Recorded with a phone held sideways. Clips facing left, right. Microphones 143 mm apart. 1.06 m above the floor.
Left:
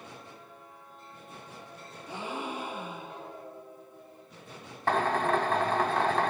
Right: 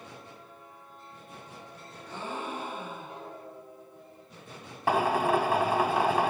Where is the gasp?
10° left (ahead or behind), 8 m.